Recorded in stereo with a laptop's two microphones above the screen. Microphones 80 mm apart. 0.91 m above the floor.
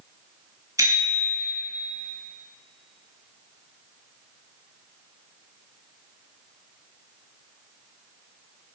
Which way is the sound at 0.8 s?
45° right (ahead or behind).